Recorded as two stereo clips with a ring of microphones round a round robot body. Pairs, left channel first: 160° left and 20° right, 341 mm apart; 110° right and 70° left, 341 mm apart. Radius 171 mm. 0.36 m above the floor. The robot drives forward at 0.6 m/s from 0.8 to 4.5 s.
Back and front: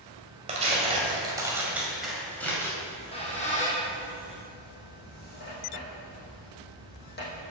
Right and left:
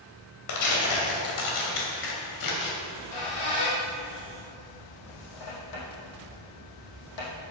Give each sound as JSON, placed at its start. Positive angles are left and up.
{"t": 0.5, "sound": "tearing paper", "azimuth_deg": -90, "distance_m": 2.5}
{"t": 2.8, "sound": "a squeak", "azimuth_deg": -125, "distance_m": 2.5}